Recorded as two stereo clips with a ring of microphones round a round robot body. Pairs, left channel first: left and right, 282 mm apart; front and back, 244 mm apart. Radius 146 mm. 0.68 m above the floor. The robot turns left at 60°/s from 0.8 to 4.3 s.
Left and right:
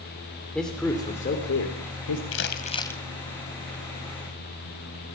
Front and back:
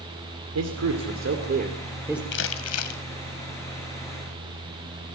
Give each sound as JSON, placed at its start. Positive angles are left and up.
{"t": 0.6, "sound": "a man speaking", "azimuth_deg": 180, "distance_m": 3.0}
{"t": 2.3, "sound": "crumpling", "azimuth_deg": 45, "distance_m": 2.5}